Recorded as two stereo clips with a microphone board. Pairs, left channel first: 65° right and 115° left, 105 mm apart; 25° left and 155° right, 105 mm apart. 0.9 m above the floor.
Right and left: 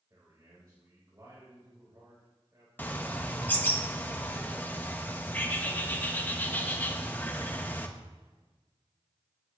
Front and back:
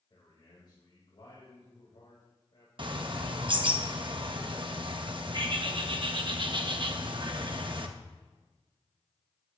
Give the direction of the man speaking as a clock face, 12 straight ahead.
10 o'clock.